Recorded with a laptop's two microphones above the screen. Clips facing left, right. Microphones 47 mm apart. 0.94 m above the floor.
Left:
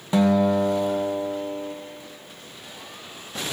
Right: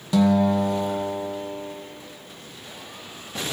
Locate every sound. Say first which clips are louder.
0.1 s a guitar: even; 25° left (ahead or behind), 0.7 m